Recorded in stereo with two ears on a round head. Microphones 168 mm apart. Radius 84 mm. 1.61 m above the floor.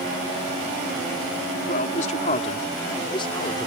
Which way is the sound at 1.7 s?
45° left (ahead or behind).